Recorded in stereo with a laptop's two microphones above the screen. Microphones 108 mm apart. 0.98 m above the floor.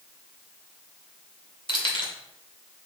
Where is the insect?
No insect in this recording.